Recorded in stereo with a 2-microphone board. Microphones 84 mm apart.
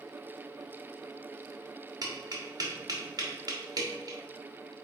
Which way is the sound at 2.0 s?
50° right (ahead or behind).